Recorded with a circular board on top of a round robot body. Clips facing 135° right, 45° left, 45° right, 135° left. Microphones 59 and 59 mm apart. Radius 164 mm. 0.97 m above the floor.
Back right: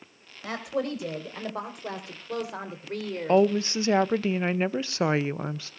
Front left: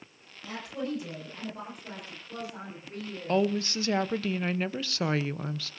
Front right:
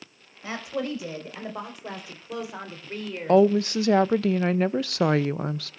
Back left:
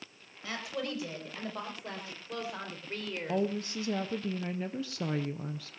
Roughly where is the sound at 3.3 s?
Right.